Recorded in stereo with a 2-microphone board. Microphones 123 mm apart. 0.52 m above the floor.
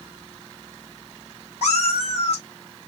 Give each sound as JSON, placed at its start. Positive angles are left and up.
{"t": 1.6, "sound": "a cat meowing", "side_deg": 60, "distance_m": 3.0}